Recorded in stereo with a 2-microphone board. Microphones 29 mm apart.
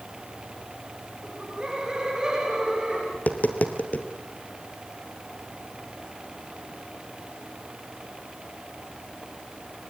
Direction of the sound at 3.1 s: 60° left (ahead or behind).